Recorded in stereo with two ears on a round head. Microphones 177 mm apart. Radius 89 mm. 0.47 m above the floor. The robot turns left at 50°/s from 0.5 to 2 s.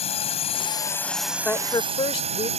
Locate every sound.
0.0 s a drone: 35° left; by 2.6 s 40° right
1.4 s a woman speaking: 10° left (ahead or behind); by 2.5 s 30° left (ahead or behind)